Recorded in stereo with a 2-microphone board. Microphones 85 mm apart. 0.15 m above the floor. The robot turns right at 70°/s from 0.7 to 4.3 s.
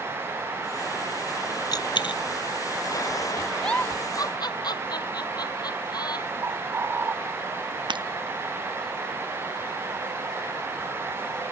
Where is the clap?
I don't hear a clap.